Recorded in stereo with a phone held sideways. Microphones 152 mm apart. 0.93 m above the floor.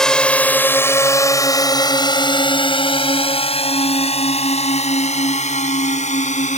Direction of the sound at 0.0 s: 5° left (ahead or behind).